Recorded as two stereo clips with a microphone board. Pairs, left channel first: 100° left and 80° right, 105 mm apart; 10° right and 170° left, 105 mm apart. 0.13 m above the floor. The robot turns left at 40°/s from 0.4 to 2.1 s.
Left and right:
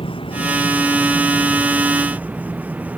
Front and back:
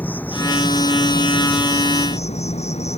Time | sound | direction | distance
0.0 | an insect | 65° left | ?